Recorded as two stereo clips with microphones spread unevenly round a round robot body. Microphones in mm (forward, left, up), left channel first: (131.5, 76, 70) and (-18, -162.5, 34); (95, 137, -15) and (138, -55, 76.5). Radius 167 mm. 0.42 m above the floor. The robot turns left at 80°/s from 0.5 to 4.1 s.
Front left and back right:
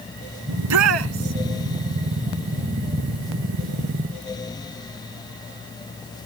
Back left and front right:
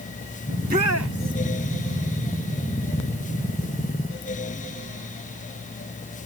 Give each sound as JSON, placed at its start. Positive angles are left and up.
{"t": 0.5, "sound": "a shout", "azimuth_deg": -130}